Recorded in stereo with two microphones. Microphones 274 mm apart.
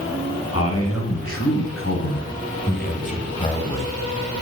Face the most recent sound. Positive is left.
turn(degrees=5)  # may be behind; listen again after turning